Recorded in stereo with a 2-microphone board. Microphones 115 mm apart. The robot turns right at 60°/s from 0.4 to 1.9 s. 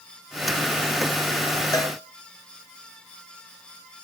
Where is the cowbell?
30° left (ahead or behind), 2.5 m; by 1.9 s 25° left (ahead or behind), 2.5 m.